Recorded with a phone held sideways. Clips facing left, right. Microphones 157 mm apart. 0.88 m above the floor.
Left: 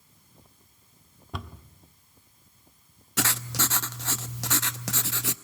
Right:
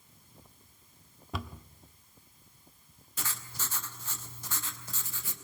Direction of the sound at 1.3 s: Centre (ahead or behind).